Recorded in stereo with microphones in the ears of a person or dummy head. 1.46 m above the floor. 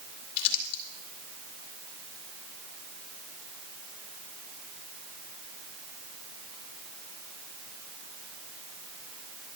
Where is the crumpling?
70° left (ahead or behind), 3 m.